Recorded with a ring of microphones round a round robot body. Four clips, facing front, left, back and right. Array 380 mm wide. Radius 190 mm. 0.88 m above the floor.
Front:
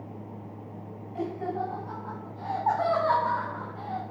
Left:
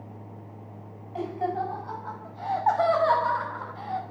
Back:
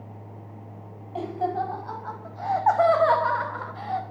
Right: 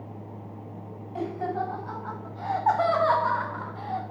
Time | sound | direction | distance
1.1 | laughter | 160° right | 6.5 m